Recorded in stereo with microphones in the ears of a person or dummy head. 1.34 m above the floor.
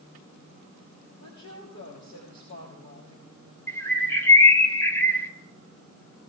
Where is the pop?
I don't hear a pop.